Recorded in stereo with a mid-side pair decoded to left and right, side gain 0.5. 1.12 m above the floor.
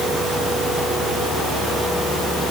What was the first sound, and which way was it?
Only background noise.